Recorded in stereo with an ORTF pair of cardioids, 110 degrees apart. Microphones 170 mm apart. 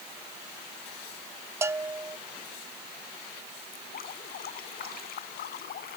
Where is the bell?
15° right.